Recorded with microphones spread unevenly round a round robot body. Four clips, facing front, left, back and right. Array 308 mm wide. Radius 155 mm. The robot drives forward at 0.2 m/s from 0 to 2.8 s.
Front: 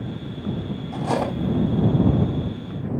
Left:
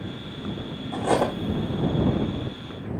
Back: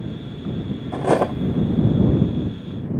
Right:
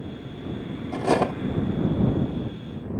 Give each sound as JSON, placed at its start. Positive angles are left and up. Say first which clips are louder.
{"t": 0.9, "sound": "cutlery clinking", "louder": "even, back 5 dB", "azimuth_deg": -165, "distance_m": 0.8}